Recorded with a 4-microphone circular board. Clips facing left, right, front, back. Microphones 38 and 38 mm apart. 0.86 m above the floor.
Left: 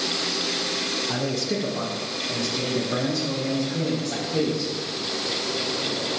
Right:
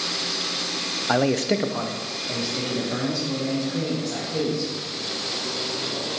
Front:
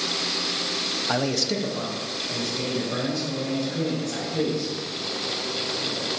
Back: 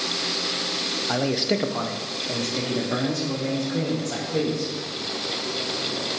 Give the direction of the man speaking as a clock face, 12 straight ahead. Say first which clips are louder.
Right 10 dB, back 2 dB; 3 o'clock.